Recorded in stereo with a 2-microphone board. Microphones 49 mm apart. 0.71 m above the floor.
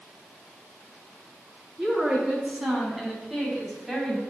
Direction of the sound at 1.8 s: 10° right (ahead or behind).